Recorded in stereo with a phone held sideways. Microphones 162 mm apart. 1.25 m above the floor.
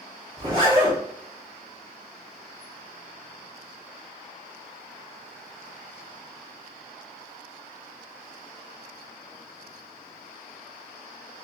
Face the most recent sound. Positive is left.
turn(degrees=-30)  # may be behind; listen again after turning